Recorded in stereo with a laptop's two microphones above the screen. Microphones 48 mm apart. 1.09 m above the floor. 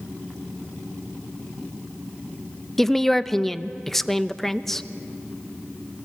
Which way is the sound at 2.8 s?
10° left (ahead or behind).